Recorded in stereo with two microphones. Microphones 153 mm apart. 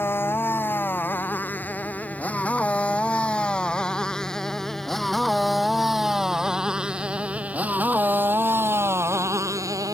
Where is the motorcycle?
15° left (ahead or behind); by 10.0 s 20° right (ahead or behind).